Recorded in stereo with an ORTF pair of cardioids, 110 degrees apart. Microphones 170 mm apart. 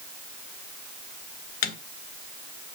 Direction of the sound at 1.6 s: 65° left.